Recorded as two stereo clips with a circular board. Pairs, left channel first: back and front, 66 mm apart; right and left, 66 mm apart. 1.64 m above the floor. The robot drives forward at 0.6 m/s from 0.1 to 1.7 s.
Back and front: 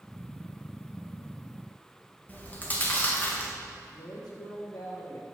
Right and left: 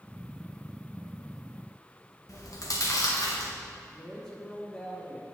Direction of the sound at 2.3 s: 115° right.